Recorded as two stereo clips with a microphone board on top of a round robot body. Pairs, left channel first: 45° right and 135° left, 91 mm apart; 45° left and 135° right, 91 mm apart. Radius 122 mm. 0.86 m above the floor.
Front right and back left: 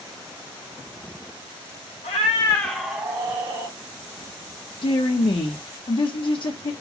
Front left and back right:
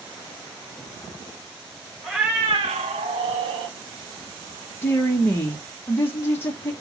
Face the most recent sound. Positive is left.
turn(degrees=-20)